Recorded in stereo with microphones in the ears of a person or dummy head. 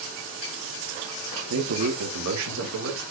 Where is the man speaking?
75° right (ahead or behind), 1.8 m.